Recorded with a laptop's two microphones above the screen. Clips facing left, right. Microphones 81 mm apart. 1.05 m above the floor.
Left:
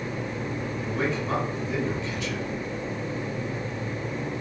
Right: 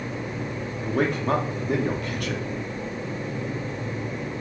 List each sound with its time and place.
0.8 s a man speaking: 55° right (ahead or behind), 0.7 m